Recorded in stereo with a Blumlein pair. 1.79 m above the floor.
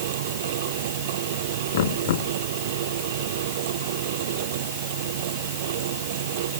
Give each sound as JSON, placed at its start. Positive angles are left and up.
{"t": 0.0, "sound": "a fan", "azimuth_deg": -55}
{"t": 1.7, "sound": "knocking", "azimuth_deg": 55}